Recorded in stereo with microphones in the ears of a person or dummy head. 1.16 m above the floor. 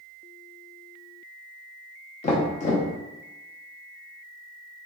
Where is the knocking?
40° left (ahead or behind), 0.7 m.